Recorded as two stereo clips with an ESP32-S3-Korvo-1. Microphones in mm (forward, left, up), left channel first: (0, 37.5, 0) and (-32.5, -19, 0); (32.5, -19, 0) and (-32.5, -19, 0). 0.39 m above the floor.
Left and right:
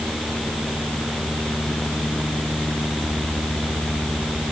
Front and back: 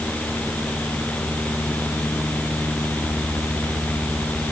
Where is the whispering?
I don't hear whispering.